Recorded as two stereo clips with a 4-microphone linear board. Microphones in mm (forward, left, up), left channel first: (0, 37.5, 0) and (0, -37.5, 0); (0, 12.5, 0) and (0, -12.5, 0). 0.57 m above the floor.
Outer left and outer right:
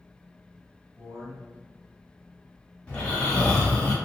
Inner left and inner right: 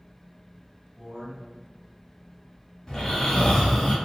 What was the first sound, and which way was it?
A man speaking, 40° right (ahead or behind).